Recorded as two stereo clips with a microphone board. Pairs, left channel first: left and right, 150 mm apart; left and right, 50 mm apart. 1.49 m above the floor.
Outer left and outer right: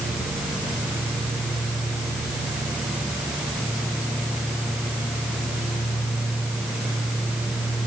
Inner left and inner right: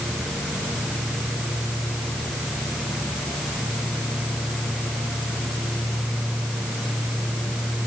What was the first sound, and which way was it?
Only background noise.